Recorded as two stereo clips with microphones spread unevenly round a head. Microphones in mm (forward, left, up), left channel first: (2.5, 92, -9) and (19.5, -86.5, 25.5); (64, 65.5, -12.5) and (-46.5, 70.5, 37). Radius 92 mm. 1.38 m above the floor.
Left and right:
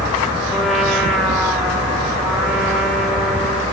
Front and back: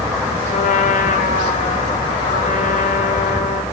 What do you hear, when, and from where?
0.5 s a trumpet: straight ahead, 3 m